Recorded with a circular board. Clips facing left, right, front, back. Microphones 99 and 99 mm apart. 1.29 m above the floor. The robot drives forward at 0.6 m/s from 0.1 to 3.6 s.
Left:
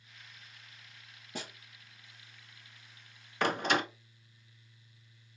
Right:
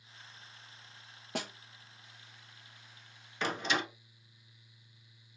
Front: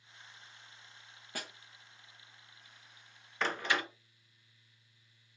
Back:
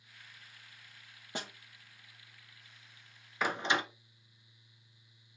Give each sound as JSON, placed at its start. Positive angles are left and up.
{"t": 1.4, "sound": "a snare drum", "azimuth_deg": -110, "distance_m": 0.8}
{"t": 3.4, "sound": "a door slam", "azimuth_deg": 100, "distance_m": 0.5}